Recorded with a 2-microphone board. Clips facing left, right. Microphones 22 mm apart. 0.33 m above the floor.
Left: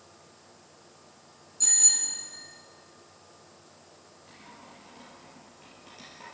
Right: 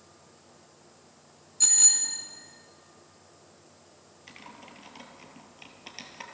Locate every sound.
1.6 s a bicycle bell: 35° right (ahead or behind), 2 m
4.3 s typing on a keyboard: 70° right (ahead or behind), 2 m